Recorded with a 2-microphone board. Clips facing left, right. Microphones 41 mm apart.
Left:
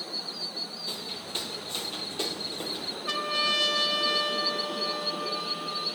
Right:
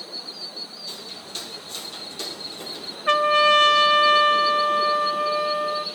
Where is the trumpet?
45° right (ahead or behind), 0.5 m.